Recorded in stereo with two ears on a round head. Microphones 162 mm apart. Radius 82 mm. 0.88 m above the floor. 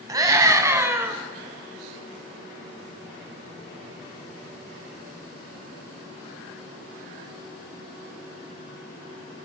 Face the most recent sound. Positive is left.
turn(degrees=-10)  # may be behind; listen again after turning